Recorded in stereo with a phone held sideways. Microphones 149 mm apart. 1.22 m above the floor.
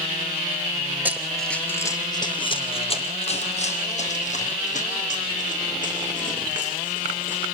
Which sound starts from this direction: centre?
Running footsteps, at 1.1 s.